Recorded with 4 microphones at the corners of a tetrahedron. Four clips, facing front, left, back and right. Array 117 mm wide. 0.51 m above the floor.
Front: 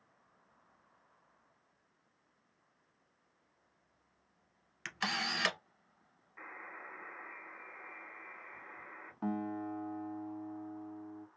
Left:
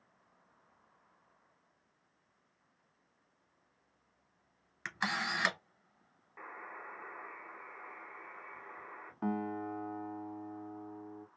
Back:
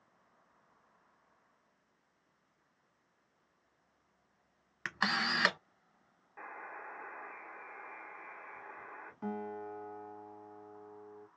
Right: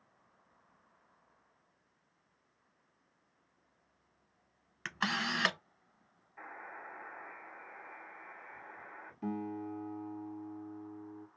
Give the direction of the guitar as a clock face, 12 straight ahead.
10 o'clock.